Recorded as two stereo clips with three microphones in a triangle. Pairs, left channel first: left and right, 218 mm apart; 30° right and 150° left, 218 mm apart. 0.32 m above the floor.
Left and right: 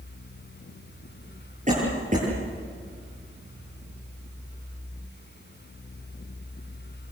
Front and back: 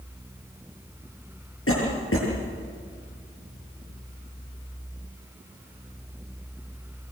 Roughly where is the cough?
Ahead right.